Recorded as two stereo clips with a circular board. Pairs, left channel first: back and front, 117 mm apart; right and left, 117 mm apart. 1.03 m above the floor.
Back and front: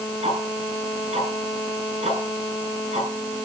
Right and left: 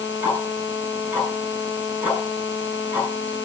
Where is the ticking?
15° left, 9.5 m.